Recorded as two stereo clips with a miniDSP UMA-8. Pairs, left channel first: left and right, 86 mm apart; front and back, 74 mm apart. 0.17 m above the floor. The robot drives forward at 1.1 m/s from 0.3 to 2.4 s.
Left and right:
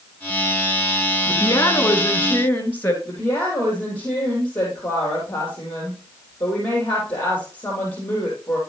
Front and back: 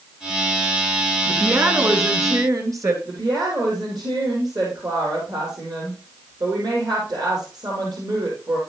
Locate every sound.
1.3 s a woman speaking: 125° left, 1.6 m; by 3.0 s 155° left, 2.5 m
3.0 s a woman speaking: 165° left, 4.5 m